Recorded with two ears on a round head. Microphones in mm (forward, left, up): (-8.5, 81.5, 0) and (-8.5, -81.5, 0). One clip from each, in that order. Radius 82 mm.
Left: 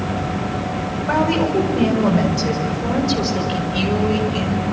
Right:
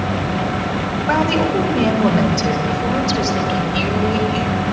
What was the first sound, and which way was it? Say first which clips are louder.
A woman speaking: right 1 dB; 30° right (ahead or behind).